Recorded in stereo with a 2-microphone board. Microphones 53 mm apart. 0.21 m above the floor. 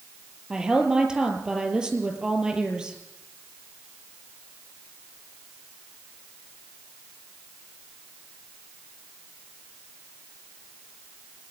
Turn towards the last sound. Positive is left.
turn(degrees=-15)  # may be behind; listen again after turning